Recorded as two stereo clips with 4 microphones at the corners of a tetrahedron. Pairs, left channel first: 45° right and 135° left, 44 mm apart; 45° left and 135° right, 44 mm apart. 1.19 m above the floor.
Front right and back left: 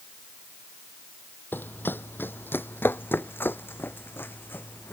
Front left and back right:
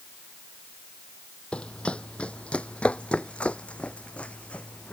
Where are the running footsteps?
15° right.